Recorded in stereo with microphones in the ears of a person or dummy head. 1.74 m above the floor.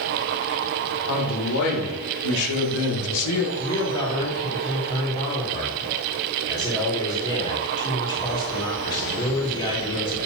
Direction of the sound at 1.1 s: 75° left (ahead or behind).